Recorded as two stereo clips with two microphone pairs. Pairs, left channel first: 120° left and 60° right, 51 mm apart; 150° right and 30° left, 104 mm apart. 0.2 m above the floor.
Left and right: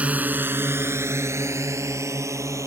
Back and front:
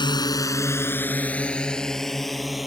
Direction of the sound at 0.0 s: 115° right.